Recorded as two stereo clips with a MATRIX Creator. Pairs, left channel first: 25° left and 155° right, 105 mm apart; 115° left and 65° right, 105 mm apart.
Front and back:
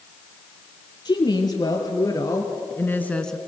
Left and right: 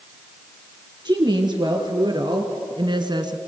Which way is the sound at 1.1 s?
25° right.